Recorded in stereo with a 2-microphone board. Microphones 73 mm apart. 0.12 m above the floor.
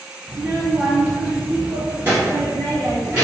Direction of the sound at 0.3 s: 5° right (ahead or behind).